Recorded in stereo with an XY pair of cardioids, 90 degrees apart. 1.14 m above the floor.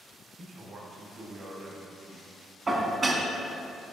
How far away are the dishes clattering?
About 1.1 m.